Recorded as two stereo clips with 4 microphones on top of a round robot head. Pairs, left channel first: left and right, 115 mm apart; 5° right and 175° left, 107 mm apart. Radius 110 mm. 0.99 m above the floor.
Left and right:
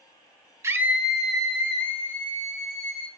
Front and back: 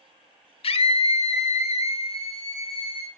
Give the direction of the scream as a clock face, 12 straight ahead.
1 o'clock.